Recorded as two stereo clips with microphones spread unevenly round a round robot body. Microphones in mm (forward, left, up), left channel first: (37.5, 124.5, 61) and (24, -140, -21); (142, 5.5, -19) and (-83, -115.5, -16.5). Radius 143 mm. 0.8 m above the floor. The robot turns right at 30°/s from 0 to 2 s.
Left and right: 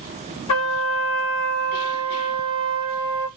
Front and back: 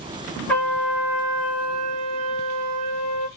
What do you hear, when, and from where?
0.5 s a trumpet: 110° left, 1.2 m; by 3.3 s 155° left, 1.2 m